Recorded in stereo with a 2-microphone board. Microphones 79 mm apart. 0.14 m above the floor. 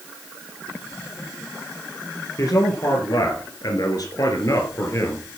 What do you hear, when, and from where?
2.4 s a man speaking: 45° left (ahead or behind), 3.5 m; by 5.3 s 35° left (ahead or behind), 3.5 m